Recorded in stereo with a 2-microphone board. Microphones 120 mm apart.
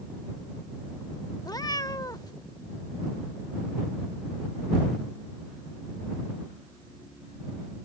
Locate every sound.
1.4 s a cat meowing: 30° left (ahead or behind)